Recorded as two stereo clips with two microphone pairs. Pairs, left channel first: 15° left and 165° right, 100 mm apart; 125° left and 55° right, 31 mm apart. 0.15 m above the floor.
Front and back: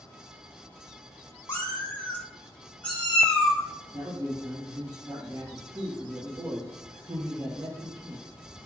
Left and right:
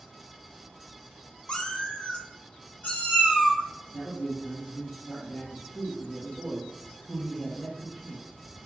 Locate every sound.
1.5 s a cat meowing: 75° left, 0.9 m; by 3.6 s 95° left, 2.5 m
3.9 s a man speaking: 140° left, 2 m